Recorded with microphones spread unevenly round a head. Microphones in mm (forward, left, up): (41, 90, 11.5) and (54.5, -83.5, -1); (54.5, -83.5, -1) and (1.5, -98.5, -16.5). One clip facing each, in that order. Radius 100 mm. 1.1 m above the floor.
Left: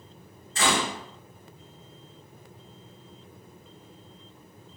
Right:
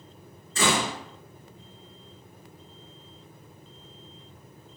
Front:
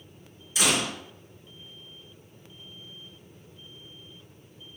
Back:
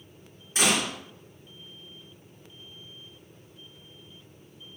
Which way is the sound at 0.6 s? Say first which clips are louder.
Right 1 dB, back 1 dB; 115° right.